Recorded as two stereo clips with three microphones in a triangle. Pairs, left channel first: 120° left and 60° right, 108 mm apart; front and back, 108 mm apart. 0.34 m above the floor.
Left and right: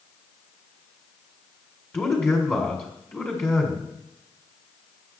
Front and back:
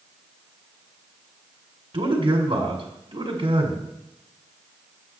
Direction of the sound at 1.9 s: 175° right.